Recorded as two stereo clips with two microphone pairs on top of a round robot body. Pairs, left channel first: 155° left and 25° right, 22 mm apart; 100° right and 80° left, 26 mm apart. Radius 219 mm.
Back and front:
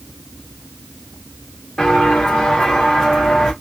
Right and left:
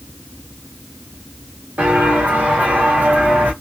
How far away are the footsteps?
About 2.5 m.